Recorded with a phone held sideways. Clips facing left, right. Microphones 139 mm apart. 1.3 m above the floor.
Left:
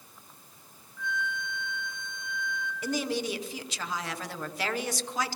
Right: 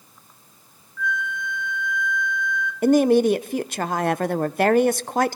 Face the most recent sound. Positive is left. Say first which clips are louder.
# right 16 dB
turn(degrees=-55)  # may be behind; listen again after turning